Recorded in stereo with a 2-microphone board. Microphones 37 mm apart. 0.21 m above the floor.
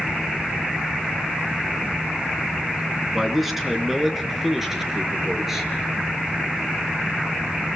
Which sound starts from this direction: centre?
A man speaking, at 3.1 s.